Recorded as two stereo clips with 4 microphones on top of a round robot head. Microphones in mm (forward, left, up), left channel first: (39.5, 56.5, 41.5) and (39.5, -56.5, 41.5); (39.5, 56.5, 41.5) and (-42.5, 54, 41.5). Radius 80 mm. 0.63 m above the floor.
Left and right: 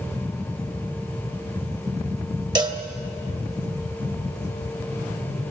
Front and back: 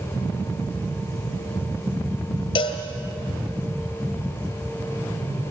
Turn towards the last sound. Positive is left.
turn(degrees=-40)